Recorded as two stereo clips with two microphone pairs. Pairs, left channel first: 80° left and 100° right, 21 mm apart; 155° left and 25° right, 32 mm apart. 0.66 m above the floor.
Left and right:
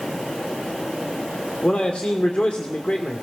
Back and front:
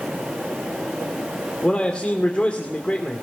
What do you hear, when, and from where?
1.6 s a man speaking: 105° left, 2.5 m